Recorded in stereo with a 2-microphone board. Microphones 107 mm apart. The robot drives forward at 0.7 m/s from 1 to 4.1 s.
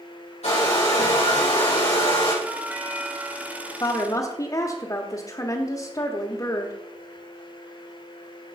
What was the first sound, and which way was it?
A hair dryer, 70° left (ahead or behind).